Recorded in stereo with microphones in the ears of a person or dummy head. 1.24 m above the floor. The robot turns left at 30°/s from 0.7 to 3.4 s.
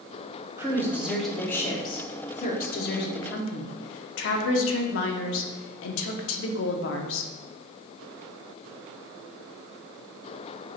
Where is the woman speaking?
165° right, 0.5 m; by 7.3 s 115° left, 0.5 m.